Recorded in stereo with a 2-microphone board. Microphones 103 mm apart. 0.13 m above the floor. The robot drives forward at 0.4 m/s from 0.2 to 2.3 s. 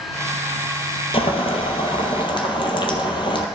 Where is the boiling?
65° left (ahead or behind), 1.1 m; by 3.5 s 50° left (ahead or behind), 1.2 m.